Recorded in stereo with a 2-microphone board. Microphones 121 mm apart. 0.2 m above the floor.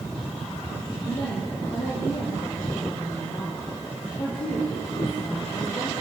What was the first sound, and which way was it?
A woman speaking, 45° left (ahead or behind).